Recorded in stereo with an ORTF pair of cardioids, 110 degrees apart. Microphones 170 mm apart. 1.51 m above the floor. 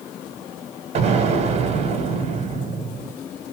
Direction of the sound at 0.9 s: 40° right.